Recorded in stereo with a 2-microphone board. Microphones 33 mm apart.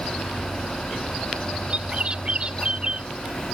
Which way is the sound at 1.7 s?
30° right (ahead or behind).